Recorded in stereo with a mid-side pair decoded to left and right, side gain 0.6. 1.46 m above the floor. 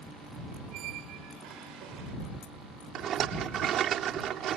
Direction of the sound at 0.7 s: 70° right.